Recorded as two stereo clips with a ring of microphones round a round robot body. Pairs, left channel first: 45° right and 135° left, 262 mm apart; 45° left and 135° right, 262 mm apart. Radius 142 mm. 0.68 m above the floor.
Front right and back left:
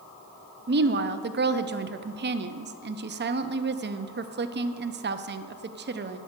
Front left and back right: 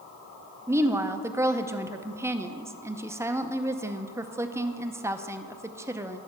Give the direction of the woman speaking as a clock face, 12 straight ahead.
7 o'clock.